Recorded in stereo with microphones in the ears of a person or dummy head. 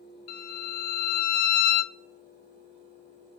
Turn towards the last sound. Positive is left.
turn(degrees=50)  # may be behind; listen again after turning